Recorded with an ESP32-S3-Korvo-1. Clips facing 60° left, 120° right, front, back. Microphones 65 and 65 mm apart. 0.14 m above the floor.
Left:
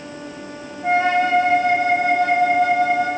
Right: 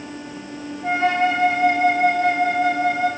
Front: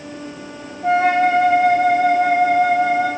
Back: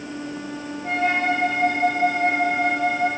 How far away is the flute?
About 1.7 m.